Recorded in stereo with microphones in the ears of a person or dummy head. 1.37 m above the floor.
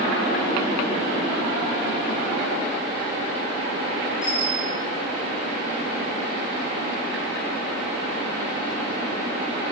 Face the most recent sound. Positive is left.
turn(degrees=50)  # may be behind; listen again after turning